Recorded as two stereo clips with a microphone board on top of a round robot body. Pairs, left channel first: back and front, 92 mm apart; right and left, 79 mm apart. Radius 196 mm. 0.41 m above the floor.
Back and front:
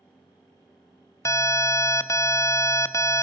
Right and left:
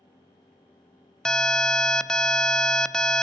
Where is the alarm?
165° right, 0.9 m.